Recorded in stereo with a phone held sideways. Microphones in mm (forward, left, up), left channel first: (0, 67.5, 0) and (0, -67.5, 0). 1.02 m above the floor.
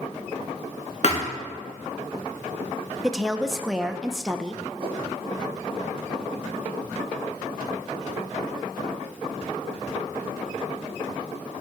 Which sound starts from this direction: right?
A whoosh, at 4.8 s.